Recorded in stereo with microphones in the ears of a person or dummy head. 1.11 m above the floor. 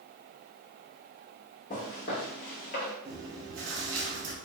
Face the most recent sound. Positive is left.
turn(degrees=-55)  # may be behind; listen again after turning